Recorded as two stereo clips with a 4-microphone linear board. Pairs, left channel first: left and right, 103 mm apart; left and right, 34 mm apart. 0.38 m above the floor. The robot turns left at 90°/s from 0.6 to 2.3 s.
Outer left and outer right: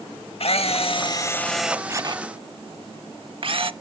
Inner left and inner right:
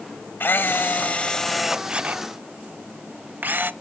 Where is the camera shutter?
90° left, 0.6 m; by 3.7 s 65° right, 0.6 m.